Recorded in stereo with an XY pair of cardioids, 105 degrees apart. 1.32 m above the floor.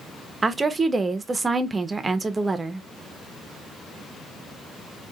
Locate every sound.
0.4 s a woman speaking: 25° right, 0.7 m